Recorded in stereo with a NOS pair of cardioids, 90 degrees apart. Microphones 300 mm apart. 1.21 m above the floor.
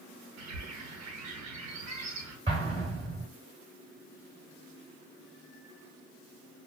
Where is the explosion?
20° right, 3 m.